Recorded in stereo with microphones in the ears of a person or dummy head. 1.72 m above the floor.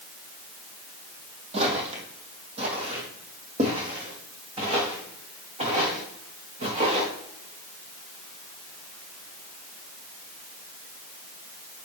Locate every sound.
1.5 s footsteps: 35° right (ahead or behind), 3 m